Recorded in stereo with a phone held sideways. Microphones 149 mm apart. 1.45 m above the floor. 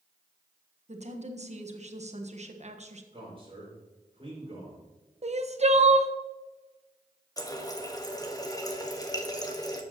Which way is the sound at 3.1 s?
35° right (ahead or behind).